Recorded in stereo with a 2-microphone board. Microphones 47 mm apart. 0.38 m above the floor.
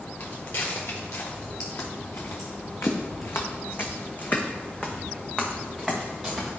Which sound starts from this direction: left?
Footsteps, at 0.2 s.